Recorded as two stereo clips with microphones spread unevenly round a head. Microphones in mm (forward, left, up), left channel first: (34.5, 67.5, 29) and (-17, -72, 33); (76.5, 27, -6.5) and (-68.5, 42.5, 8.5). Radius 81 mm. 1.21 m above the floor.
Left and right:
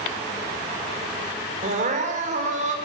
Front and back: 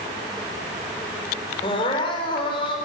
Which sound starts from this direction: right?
Crying, at 1.6 s.